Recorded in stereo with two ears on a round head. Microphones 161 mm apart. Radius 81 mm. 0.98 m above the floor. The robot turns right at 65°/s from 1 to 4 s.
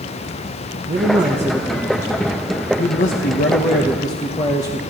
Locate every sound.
0.9 s a man speaking: 45° right, 1.0 m; by 4.8 s 150° left, 1.0 m